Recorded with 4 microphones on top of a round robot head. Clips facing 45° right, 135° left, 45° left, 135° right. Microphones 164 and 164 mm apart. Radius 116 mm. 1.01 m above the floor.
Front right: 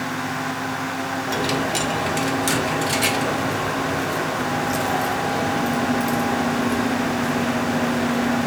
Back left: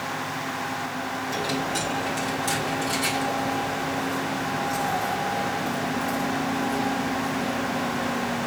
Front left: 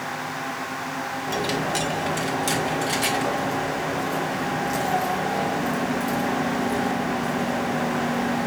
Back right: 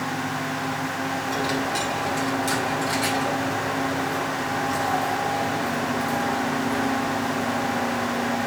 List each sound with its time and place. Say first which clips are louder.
1.3 s a dropped coin: front right 5 dB, front left 2 dB; 20° right, 1.5 m